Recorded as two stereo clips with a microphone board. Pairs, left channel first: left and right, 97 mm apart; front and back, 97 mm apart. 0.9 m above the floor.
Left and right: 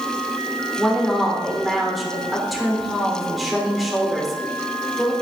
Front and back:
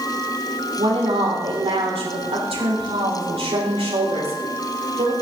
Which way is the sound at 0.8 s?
Straight behind.